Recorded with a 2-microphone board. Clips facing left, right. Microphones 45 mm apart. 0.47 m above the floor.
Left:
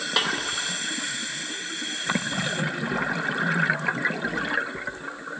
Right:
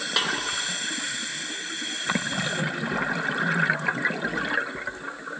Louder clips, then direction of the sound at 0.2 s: Left 1 dB; 5° left (ahead or behind).